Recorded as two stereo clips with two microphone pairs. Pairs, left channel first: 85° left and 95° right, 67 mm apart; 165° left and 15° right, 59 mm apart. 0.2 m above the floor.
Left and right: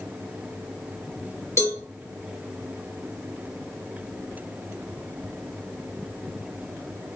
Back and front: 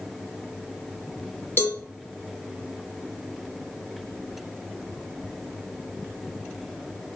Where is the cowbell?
120° left, 1.6 m.